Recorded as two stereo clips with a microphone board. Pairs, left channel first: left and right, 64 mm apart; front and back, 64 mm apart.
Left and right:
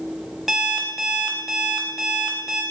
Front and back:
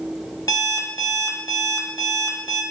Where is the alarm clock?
5° right, 0.7 m.